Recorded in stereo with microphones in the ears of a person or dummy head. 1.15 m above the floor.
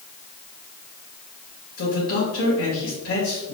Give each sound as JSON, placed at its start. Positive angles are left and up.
{"t": 1.8, "sound": "a man speaking", "side_deg": 70, "distance_m": 1.9}